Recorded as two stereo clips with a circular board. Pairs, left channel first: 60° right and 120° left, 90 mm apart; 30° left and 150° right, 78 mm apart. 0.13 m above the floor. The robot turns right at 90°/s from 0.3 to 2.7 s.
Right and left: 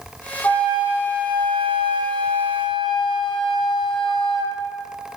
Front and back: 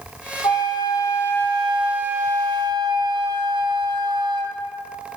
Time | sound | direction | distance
0.4 | a flute | 5° left | 1.5 m